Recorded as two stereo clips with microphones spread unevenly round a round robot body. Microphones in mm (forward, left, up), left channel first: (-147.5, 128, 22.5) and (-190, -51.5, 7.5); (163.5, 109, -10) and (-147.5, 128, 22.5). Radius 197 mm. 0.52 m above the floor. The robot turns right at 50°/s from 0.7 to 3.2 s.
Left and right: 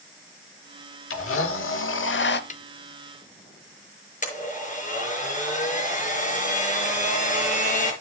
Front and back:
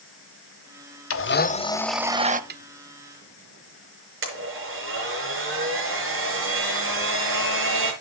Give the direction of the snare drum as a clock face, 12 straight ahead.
8 o'clock.